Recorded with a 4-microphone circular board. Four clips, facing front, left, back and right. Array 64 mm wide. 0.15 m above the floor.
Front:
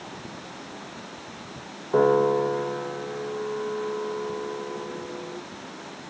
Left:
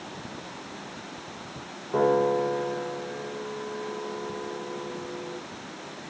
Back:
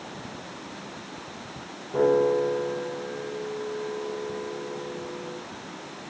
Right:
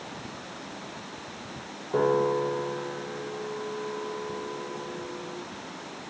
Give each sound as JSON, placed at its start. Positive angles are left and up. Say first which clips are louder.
{"t": 1.9, "sound": "a piano", "louder": "left 1 dB, front 2 dB", "azimuth_deg": 0, "distance_m": 4.0}